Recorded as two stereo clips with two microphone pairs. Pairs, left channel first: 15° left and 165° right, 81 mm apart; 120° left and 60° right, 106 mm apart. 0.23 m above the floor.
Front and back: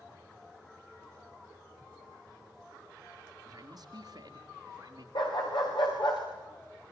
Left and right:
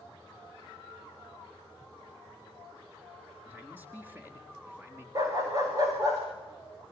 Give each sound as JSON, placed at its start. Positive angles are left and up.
{"t": 3.5, "sound": "a man speaking", "azimuth_deg": -130, "distance_m": 4.0}
{"t": 5.2, "sound": "a dog barking", "azimuth_deg": -5, "distance_m": 6.5}